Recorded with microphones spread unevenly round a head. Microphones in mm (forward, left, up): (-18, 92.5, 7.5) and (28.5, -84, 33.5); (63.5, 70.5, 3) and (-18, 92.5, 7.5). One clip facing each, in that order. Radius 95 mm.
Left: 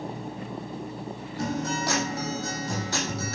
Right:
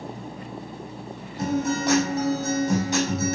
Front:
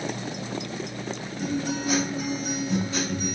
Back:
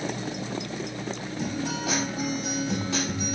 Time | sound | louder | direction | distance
1.4 | a guitar | right 5 dB, front 3 dB | 145° right | 7.5 m